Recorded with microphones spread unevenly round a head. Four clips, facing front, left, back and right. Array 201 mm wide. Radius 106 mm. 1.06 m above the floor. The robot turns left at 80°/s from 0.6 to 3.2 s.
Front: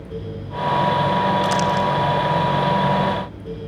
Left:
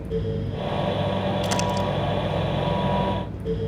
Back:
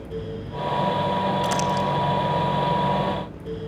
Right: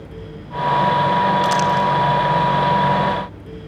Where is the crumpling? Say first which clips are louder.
Right 8 dB, front 4 dB; 155° left, 0.9 m; by 1.9 s 120° left, 0.9 m.